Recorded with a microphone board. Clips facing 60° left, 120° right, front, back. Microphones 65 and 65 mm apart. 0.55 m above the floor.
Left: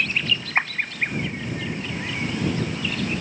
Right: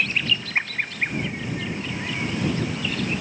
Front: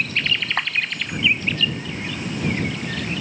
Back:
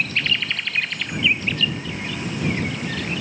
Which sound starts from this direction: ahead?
A clap, at 0.6 s.